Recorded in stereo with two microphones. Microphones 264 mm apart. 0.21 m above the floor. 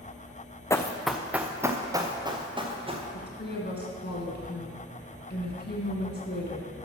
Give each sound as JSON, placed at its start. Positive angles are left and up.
{"t": 0.7, "sound": "running footsteps", "side_deg": 10, "distance_m": 0.7}
{"t": 3.1, "sound": "a woman speaking", "side_deg": 40, "distance_m": 2.0}